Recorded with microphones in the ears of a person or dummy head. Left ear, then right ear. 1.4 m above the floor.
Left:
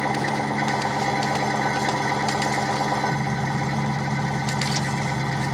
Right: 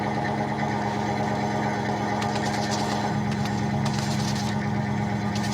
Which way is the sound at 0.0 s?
55° left (ahead or behind).